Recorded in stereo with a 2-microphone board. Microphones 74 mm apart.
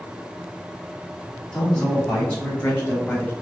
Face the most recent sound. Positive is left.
turn(degrees=20)  # may be behind; listen again after turning